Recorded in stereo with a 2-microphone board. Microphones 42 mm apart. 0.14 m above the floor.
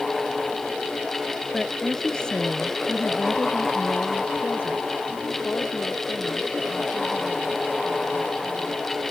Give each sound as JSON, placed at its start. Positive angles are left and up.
{"t": 1.5, "sound": "a woman speaking", "side_deg": 0}